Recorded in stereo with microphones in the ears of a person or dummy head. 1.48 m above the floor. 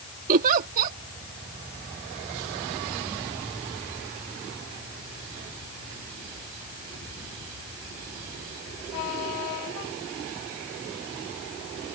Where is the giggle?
45° right (ahead or behind).